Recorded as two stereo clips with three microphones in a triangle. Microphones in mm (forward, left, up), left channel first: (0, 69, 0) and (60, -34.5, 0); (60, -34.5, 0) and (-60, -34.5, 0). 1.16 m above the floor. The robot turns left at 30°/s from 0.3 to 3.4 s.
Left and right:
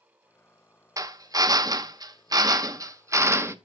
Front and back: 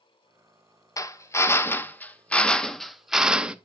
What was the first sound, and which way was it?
A drill, 30° right.